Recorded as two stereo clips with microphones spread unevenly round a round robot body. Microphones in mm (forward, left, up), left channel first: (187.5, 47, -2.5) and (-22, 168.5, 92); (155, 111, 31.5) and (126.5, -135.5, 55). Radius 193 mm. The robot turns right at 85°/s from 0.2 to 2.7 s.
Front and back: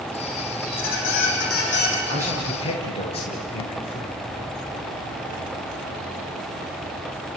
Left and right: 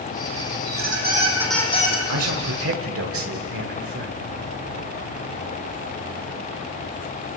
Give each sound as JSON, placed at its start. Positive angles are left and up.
{"t": 0.7, "sound": "a squeak", "azimuth_deg": -80, "distance_m": 5.0}
{"t": 2.1, "sound": "a man speaking", "azimuth_deg": -130, "distance_m": 1.9}